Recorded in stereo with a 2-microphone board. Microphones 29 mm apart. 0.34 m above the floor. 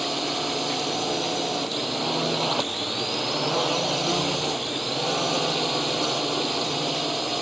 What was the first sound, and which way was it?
A drone, centre (ahead or behind).